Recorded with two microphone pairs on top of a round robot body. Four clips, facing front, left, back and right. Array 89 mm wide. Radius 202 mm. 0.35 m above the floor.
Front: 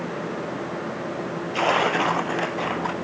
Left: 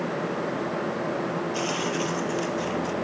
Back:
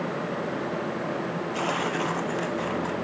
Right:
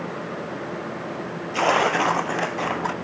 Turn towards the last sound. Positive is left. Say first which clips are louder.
# right 7 dB, front 8 dB
turn(degrees=-60)